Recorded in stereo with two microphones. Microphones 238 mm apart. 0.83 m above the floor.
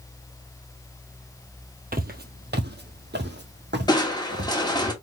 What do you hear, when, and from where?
1.9 s footsteps: 40° right (ahead or behind), 1.0 m; by 4.6 s 45° right (ahead or behind), 1.9 m
3.9 s crushing: 15° left (ahead or behind), 1.4 m